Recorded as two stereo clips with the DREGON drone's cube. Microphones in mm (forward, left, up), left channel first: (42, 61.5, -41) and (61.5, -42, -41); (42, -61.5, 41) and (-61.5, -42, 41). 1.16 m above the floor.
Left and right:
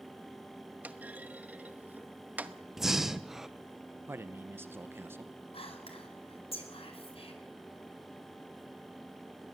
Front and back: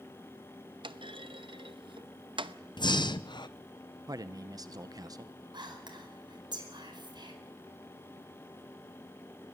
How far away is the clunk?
About 0.8 m.